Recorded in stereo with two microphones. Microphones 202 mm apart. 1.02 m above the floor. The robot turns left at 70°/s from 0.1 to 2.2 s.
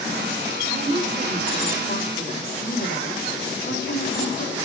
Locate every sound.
0.7 s a woman speaking: 130° right, 4 m; by 4.6 s 125° left, 4 m